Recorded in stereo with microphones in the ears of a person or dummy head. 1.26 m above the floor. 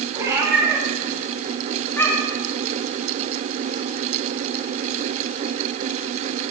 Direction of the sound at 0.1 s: 25° right (ahead or behind).